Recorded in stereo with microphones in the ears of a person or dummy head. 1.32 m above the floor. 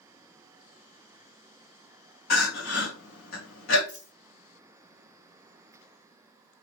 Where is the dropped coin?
25° left (ahead or behind), 1.5 m.